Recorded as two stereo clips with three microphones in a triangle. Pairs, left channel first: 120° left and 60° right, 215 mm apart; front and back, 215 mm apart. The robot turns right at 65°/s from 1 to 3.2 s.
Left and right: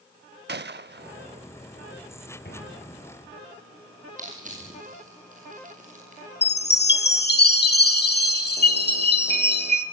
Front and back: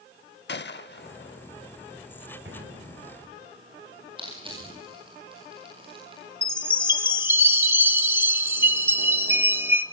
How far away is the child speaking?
No child speaking in this recording.